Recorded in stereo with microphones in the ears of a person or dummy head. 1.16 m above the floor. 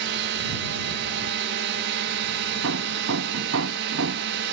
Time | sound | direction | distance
0.0 | a drone | 55° right (ahead or behind) | ?
2.6 | hammering | 75° right (ahead or behind) | ?